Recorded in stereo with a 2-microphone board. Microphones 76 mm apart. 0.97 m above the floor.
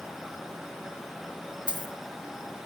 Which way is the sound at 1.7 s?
65° right (ahead or behind).